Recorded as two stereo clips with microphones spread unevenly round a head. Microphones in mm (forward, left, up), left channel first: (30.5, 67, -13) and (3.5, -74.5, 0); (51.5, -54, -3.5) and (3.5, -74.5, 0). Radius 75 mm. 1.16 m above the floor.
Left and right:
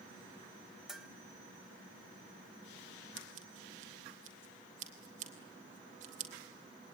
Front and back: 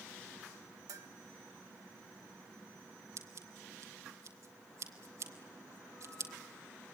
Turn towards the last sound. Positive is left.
turn(degrees=-145)